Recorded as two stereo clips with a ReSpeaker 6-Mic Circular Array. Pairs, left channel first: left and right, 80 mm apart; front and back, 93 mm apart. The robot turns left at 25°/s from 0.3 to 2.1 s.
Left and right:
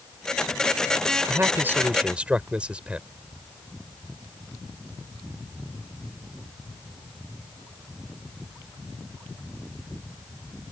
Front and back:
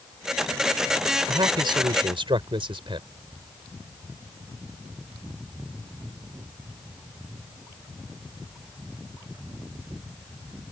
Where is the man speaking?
145° right; by 3.1 s 165° right.